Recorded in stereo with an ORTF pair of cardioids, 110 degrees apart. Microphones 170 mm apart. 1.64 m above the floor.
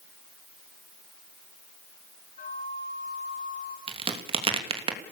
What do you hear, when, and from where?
2.4 s a flute: 50° left, 4.5 m
3.9 s a crack: 35° right, 3 m